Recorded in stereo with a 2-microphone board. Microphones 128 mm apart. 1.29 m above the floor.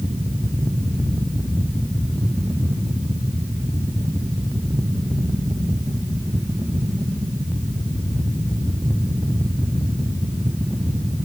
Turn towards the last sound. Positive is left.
No sound to turn to.